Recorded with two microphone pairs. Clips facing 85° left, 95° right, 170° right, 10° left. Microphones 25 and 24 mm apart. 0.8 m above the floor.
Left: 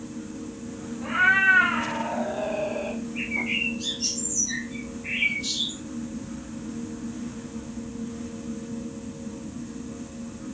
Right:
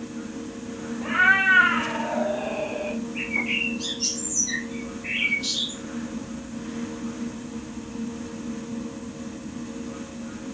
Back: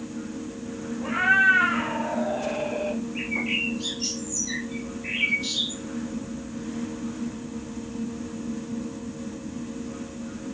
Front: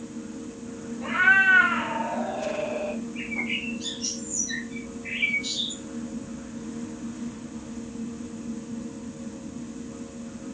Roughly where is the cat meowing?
Ahead right.